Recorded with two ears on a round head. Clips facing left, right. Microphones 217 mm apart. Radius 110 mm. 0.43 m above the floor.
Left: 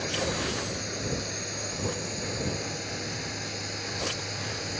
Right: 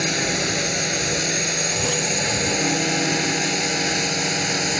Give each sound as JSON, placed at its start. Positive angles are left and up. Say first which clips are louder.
{"t": 0.0, "sound": "a drone", "louder": "right 6 dB", "side_deg": -80}